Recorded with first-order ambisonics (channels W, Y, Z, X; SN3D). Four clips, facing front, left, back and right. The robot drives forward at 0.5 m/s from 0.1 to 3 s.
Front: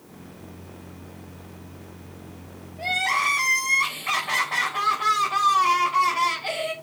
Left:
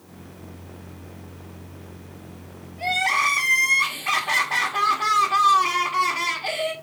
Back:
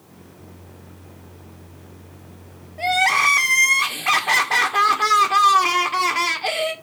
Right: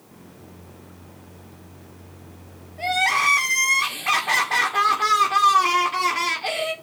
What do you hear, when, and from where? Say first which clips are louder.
2.8 s crying: right 1 dB, back 6 dB; 165° right, 1.5 m